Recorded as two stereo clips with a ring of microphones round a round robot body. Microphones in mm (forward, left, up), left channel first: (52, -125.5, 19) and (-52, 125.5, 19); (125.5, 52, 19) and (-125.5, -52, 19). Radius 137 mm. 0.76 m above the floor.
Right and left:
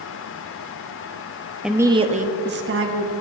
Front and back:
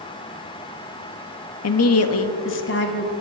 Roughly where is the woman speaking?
Ahead left.